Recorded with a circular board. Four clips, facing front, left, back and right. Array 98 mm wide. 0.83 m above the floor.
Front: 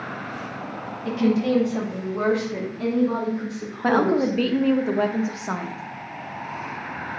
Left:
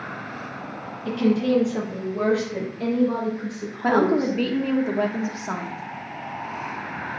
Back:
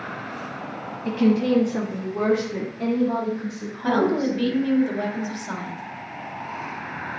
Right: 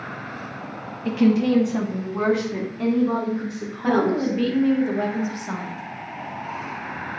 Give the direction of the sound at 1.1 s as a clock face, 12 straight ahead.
4 o'clock.